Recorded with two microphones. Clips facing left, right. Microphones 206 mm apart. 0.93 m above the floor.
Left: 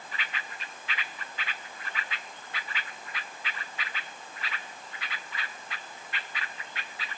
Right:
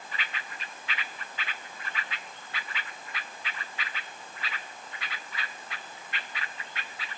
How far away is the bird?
No bird in this recording.